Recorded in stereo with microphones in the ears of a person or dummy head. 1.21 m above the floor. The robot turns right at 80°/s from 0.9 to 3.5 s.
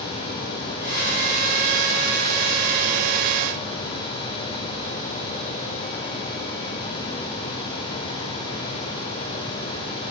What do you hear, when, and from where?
Only background noise.